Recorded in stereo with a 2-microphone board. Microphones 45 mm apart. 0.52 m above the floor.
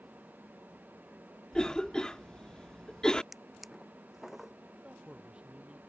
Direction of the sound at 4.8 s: 25° right (ahead or behind).